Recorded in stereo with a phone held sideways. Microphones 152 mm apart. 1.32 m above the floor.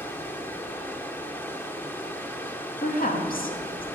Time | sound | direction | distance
0.0 | running water | 15° left (ahead or behind) | 1.1 m
2.8 | a woman speaking | 70° left (ahead or behind) | 1.8 m